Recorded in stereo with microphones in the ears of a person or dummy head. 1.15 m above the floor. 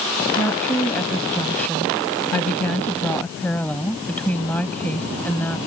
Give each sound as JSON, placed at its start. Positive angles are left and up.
{"t": 0.4, "sound": "a woman speaking", "side_deg": 10}